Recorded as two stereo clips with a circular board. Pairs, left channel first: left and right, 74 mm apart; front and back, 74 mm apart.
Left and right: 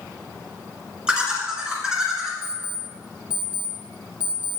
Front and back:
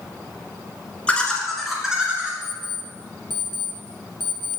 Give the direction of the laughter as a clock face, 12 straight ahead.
1 o'clock.